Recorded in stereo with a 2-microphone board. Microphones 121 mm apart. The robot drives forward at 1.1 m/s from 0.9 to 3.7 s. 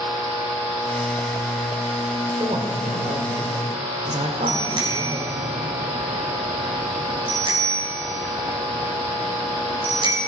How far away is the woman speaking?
About 2.5 m.